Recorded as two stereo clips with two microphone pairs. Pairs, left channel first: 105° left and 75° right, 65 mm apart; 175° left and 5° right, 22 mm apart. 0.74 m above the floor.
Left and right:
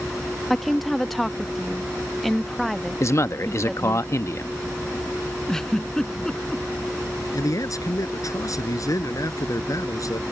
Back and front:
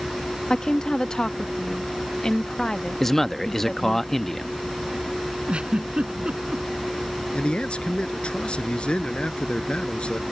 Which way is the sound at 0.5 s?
170° right.